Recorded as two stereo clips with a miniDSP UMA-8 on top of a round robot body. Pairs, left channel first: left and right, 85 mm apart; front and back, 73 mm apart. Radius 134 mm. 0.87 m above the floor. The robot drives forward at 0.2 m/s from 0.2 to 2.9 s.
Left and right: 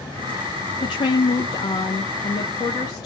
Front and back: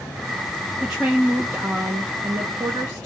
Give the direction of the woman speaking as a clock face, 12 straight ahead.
9 o'clock.